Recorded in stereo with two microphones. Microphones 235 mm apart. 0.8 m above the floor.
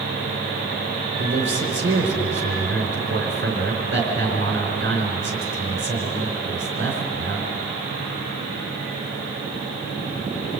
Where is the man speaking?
55° right (ahead or behind), 3.5 m.